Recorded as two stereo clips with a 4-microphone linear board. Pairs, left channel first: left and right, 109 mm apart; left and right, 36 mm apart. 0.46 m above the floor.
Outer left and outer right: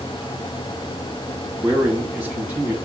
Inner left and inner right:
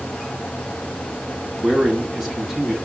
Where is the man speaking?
20° right (ahead or behind), 3 m; by 2.7 s 10° right (ahead or behind), 2 m.